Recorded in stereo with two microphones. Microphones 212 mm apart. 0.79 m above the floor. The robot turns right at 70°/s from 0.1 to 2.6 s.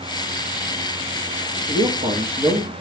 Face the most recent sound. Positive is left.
turn(degrees=-5)